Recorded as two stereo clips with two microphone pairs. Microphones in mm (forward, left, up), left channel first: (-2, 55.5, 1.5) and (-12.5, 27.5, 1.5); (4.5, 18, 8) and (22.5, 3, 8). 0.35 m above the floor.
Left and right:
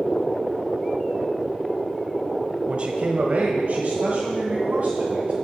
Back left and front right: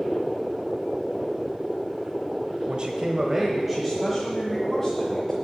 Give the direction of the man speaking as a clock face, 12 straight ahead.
2 o'clock.